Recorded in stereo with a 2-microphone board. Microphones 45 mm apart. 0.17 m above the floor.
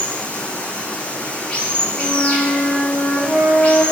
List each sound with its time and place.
0.0 s running water: 25° left (ahead or behind), 0.9 m
1.9 s a flute: 20° right (ahead or behind), 2.5 m